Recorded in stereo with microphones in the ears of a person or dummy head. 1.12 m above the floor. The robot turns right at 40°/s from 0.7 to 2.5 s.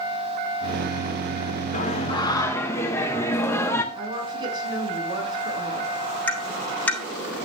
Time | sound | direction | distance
1.7 | singing | 130° left | 0.9 m
4.0 | a woman speaking | 30° right (ahead or behind) | 7.5 m
6.3 | tapping | 5° left (ahead or behind) | 6 m